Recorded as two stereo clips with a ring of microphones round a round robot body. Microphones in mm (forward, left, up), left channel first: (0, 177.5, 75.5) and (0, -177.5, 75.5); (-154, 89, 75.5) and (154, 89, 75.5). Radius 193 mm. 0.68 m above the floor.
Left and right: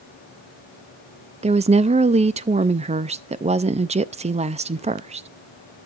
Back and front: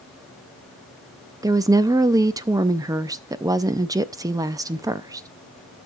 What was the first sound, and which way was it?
A woman speaking, 55° right.